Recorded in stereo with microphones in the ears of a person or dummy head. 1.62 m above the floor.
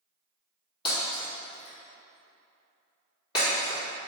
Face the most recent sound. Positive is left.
turn(degrees=25)  # may be behind; listen again after turning